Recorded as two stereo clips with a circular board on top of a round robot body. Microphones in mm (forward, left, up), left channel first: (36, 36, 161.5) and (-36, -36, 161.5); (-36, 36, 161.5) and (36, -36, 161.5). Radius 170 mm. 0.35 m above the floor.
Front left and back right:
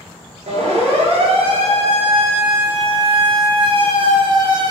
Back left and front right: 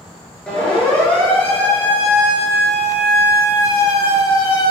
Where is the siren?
145° right, 6 m; by 4.7 s 175° right, 4.5 m.